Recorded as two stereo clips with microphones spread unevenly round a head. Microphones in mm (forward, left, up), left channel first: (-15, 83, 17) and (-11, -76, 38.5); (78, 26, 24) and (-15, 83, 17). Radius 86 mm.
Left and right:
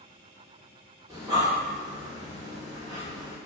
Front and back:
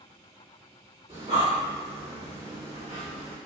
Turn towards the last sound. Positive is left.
turn(degrees=-155)